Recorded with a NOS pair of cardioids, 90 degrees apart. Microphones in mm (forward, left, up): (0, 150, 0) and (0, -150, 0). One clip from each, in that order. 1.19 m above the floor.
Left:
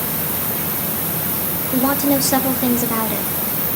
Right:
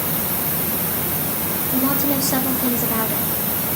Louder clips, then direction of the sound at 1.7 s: Left 5 dB; 25° left.